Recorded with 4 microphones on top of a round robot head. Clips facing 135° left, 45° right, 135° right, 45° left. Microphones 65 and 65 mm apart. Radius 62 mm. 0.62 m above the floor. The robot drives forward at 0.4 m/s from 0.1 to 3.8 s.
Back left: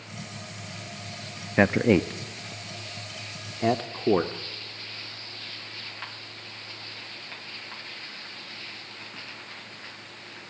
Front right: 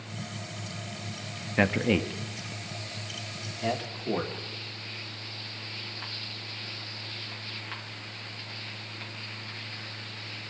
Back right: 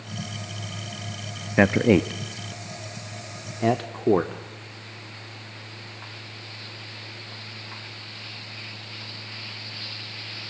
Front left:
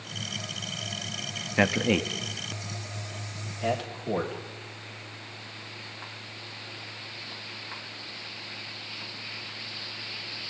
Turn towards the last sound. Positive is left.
turn(degrees=180)